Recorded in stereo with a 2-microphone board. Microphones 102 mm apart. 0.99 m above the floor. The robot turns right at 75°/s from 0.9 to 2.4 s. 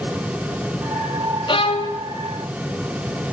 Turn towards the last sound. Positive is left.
turn(degrees=125)